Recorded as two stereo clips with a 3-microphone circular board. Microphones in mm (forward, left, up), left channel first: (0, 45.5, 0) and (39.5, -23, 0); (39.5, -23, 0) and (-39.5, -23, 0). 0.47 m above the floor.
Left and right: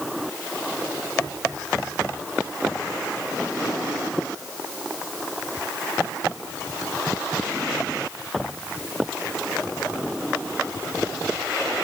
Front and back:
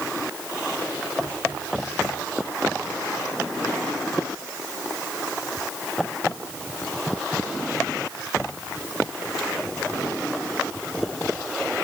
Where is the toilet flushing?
No toilet flushing in this recording.